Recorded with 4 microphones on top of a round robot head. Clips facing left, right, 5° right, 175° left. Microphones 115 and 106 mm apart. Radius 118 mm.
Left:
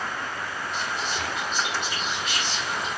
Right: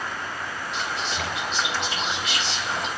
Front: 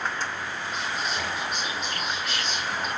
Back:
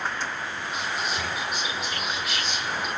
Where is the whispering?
100° right, 5.5 m.